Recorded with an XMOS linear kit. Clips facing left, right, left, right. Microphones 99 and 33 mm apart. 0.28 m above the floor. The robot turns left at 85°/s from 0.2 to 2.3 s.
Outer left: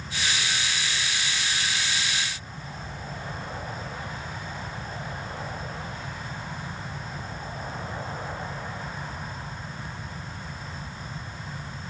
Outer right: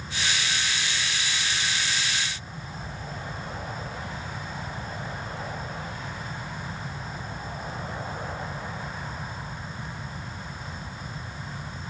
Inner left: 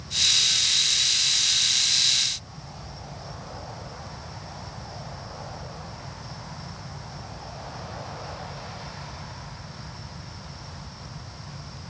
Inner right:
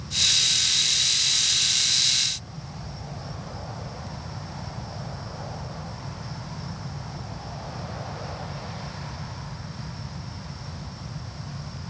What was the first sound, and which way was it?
Only background noise.